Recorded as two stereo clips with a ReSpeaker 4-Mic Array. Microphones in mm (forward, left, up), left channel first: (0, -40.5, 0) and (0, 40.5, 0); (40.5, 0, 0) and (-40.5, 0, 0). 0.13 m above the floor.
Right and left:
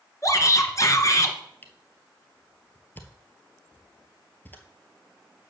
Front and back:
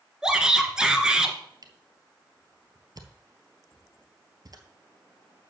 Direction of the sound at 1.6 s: 155° right.